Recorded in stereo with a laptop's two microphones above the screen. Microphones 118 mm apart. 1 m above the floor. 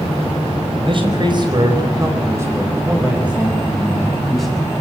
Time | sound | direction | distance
0.8 | a man speaking | 50° right (ahead or behind) | 4.5 m